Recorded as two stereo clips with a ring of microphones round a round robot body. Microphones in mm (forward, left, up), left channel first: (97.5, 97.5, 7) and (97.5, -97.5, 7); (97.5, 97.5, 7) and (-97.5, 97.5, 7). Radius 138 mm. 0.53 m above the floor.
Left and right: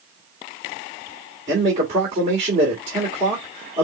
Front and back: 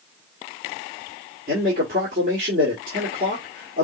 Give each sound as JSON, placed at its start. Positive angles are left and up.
{"t": 1.5, "sound": "a man speaking", "azimuth_deg": -145, "distance_m": 1.8}